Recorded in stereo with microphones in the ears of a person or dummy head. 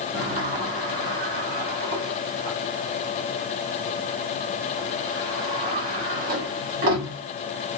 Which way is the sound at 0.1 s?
40° right (ahead or behind).